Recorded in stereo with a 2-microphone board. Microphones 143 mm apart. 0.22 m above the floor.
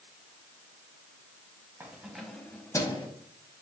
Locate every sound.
1.8 s keys jangling: 15° right (ahead or behind), 1.0 m; by 3.1 s 35° left (ahead or behind), 1.0 m